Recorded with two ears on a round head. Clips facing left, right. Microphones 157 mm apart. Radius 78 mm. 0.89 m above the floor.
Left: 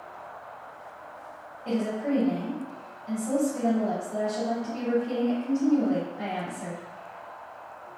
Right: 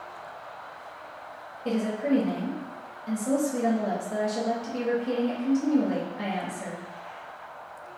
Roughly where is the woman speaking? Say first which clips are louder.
Right 2 dB; right.